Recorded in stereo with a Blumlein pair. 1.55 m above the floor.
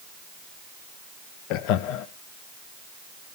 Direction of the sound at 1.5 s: 40° left.